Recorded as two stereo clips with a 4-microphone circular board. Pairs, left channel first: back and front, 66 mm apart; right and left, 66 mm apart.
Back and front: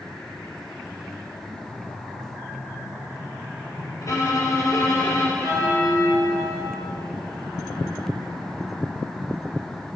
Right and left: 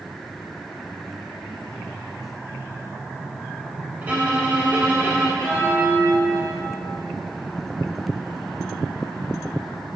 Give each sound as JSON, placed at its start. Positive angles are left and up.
{"t": 4.0, "sound": "a violin", "azimuth_deg": 150, "distance_m": 1.1}
{"t": 5.4, "sound": "a bell", "azimuth_deg": -15, "distance_m": 1.4}